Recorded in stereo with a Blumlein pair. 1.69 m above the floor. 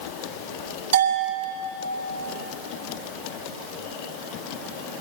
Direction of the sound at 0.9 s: 65° right.